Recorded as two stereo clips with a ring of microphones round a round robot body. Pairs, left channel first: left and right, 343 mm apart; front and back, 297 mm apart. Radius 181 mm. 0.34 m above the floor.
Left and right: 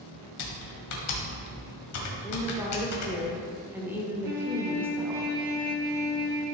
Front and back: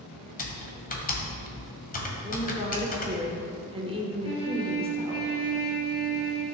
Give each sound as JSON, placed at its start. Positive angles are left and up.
{"t": 0.4, "sound": "typing on a keyboard", "azimuth_deg": 60, "distance_m": 1.7}
{"t": 2.2, "sound": "a woman speaking", "azimuth_deg": -160, "distance_m": 1.3}
{"t": 4.2, "sound": "a trumpet", "azimuth_deg": -35, "distance_m": 2.5}